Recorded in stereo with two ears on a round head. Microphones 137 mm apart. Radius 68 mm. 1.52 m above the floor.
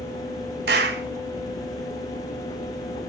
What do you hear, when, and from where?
0.7 s a clap: 75° right (ahead or behind), 1.5 m